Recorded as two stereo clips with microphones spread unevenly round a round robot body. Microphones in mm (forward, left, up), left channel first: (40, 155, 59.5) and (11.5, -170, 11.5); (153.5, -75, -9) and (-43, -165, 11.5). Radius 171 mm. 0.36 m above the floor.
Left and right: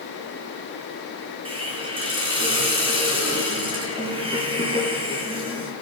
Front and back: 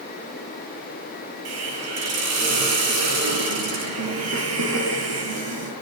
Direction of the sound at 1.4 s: 170° right.